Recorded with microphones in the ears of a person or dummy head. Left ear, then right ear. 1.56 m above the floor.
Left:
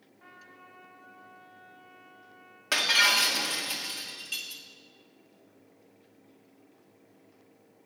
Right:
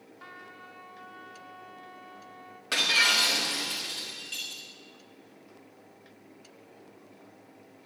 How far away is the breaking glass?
About 1.7 m.